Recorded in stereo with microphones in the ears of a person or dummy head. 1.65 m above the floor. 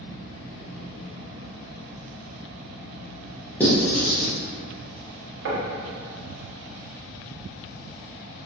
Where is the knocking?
65° right (ahead or behind), 0.5 m.